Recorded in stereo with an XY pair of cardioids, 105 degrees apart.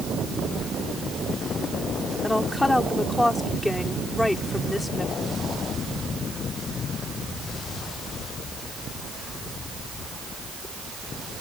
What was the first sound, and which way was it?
A woman speaking, 15° left.